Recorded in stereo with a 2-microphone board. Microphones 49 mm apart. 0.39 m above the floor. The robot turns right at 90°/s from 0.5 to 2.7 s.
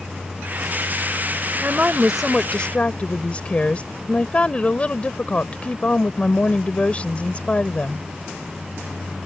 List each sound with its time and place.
1.6 s a woman speaking: 60° right; by 8.1 s 40° left